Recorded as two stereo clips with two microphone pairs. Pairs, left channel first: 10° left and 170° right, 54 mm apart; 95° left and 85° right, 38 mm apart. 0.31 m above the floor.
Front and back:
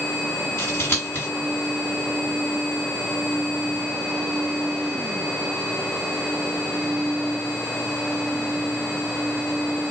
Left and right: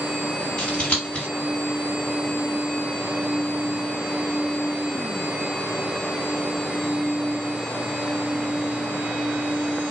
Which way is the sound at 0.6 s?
45° left.